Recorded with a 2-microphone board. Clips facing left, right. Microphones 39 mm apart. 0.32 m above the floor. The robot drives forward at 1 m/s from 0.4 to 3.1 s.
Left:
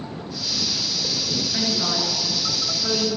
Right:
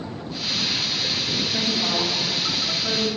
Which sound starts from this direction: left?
A woman speaking, at 1.5 s.